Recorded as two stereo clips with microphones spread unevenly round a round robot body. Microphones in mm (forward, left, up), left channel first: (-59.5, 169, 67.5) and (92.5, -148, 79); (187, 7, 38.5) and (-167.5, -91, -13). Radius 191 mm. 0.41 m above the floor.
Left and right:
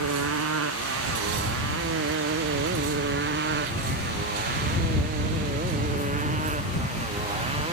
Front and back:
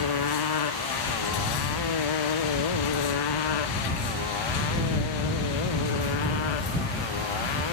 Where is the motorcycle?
15° right; by 7.7 s 10° left.